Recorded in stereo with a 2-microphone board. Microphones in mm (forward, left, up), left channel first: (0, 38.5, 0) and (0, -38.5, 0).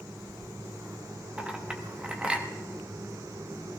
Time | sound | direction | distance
1.4 | a clink | 15° right (ahead or behind) | 1.1 m